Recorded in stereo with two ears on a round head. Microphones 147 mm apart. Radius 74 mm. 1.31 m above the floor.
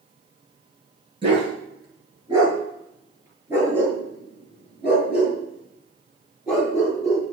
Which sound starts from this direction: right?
A dog barking, at 1.2 s.